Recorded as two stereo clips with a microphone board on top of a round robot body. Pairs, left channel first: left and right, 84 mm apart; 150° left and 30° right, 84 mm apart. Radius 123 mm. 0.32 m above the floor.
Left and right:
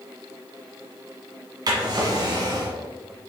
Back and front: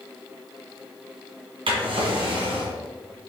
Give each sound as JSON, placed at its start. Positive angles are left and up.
{"t": 1.7, "sound": "a drawer", "azimuth_deg": -50, "distance_m": 1.7}